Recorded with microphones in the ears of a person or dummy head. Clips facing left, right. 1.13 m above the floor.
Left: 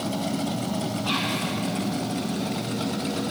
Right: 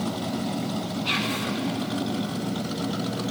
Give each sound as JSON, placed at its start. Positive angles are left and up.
{"t": 1.1, "sound": "whispering", "side_deg": -30, "distance_m": 1.0}